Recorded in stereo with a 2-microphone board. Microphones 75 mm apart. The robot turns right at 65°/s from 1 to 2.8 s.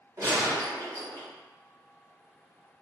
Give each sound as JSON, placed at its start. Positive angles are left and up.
{"t": 0.2, "sound": "a gunshot", "side_deg": -40, "distance_m": 1.5}